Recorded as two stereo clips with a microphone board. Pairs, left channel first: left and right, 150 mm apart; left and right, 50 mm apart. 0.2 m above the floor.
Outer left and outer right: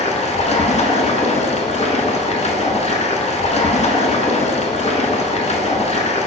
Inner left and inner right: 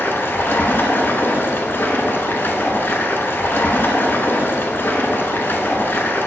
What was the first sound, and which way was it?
Running water, 50° left (ahead or behind).